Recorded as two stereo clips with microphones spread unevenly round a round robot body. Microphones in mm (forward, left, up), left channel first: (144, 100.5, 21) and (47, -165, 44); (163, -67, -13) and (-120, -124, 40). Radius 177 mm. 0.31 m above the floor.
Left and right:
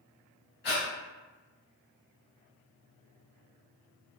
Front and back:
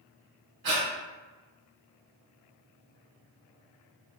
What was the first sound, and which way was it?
Breathing, 130° left.